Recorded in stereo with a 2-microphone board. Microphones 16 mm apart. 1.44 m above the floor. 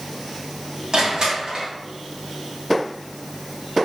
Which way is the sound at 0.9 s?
50° right (ahead or behind).